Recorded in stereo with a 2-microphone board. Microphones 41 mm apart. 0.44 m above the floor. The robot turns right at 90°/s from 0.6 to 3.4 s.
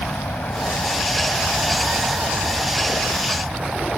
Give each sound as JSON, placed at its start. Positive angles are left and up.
{"t": 0.0, "sound": "an aircraft", "azimuth_deg": 85}